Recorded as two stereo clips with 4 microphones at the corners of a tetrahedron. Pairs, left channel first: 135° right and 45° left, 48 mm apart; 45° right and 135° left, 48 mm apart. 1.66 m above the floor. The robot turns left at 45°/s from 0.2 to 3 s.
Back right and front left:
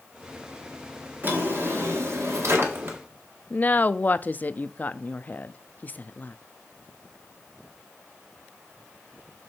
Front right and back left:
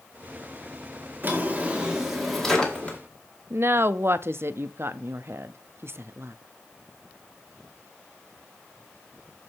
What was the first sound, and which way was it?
A drawer, 90° left.